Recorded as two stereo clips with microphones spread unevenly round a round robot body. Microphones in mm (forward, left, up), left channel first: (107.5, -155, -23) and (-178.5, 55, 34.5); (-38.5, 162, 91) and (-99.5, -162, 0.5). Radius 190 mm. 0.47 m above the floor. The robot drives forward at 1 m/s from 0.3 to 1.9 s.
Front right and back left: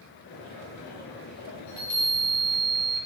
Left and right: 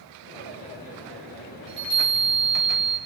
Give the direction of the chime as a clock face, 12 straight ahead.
2 o'clock.